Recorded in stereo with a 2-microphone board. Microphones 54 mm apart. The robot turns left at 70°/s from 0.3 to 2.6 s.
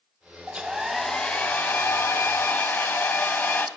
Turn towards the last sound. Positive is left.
turn(degrees=65)